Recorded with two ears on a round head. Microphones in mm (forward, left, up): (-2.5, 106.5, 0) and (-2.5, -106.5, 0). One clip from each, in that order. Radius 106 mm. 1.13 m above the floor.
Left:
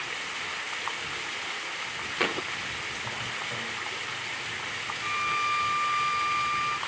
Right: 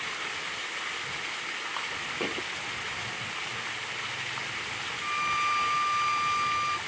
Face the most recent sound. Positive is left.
turn(degrees=-10)  # may be behind; listen again after turning